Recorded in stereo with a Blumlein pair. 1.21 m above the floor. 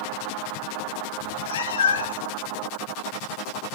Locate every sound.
1.2 s a cat meowing: 55° left, 1.1 m; by 2.3 s 75° left, 1.7 m